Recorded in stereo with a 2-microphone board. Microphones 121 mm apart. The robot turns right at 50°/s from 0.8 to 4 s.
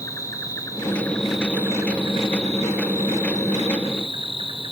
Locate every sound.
0.0 s an insect: 155° left, 0.7 m; by 4.7 s 45° right, 0.7 m